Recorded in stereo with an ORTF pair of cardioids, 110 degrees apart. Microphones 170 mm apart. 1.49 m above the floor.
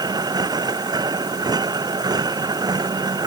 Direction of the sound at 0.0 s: 20° right.